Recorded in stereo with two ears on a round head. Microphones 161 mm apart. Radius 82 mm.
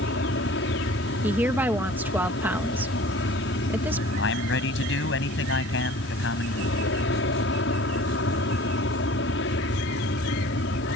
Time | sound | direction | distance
0.0 | an aircraft | 70° left (ahead or behind) | ?
1.2 | a woman speaking | 10° right (ahead or behind) | ?
4.2 | a man speaking | 75° left (ahead or behind) | ?